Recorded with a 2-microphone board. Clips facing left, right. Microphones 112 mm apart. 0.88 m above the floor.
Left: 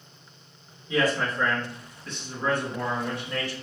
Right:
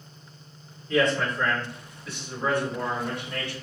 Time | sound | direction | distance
0.9 | a man speaking | 10° left (ahead or behind) | 2.5 m